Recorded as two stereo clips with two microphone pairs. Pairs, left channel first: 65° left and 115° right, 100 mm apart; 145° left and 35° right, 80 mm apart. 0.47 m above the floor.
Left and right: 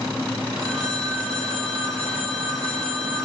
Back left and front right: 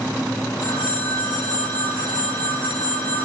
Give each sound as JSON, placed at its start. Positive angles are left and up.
{"t": 0.6, "sound": "a phone ringing", "azimuth_deg": 140, "distance_m": 7.0}